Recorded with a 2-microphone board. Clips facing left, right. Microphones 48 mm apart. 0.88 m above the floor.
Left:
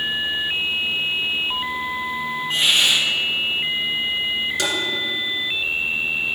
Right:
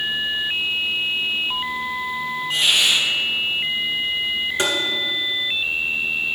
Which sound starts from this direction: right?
Tapping, at 4.6 s.